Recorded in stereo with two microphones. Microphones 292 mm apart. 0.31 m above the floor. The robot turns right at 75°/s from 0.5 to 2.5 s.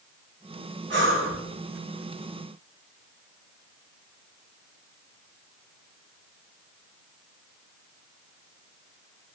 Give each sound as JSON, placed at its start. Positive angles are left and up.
{"t": 0.9, "sound": "breathing", "azimuth_deg": -125, "distance_m": 0.7}